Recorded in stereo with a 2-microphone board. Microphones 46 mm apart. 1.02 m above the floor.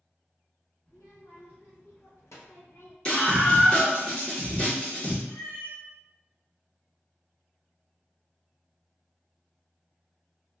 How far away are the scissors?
I don't hear scissors.